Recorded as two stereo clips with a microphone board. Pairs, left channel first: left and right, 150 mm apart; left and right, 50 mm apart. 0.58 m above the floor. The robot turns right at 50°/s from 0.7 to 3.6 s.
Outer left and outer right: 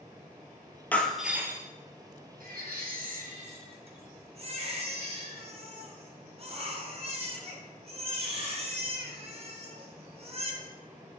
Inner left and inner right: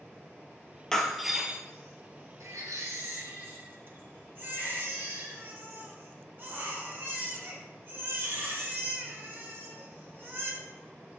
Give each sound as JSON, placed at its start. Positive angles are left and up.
{"t": 0.9, "sound": "breaking glass", "azimuth_deg": 170, "distance_m": 1.7}
{"t": 2.4, "sound": "a baby crying", "azimuth_deg": -105, "distance_m": 3.0}